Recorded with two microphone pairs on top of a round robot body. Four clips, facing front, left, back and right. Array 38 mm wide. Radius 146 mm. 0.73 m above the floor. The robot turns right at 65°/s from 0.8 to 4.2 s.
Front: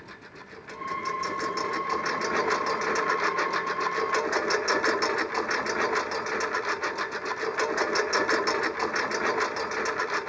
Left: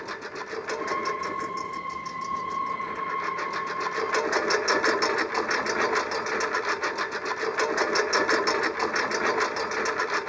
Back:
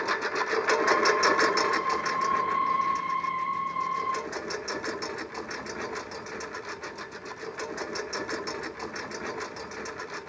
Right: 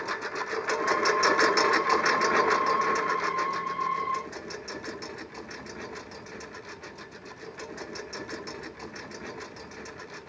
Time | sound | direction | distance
0.0 | a lawn mower | 165° right | ?